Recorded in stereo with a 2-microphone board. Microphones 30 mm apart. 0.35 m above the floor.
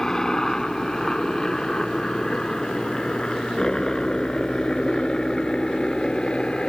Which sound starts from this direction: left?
A helicopter, at 0.0 s.